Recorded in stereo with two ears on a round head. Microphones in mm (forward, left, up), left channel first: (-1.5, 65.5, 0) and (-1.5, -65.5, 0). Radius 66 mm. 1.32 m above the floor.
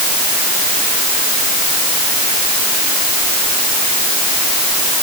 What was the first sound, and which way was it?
Only background noise.